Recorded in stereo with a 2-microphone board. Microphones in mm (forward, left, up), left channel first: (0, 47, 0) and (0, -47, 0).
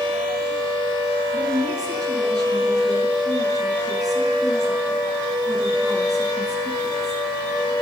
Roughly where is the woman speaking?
Right.